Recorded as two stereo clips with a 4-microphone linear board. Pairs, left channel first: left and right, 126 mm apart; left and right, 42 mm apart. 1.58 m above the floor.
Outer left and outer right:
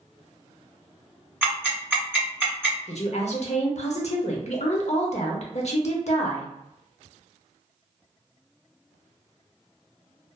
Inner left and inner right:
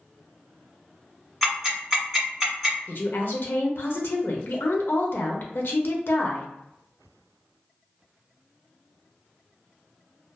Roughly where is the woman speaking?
Left.